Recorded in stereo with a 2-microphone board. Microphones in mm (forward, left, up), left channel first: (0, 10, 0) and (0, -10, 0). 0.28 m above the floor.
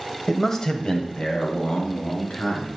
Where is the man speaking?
5° left (ahead or behind), 1.0 m; by 2.7 s 75° left (ahead or behind), 3 m.